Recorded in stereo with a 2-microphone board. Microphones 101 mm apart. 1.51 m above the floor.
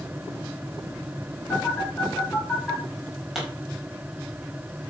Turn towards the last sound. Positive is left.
turn(degrees=-5)  # may be behind; listen again after turning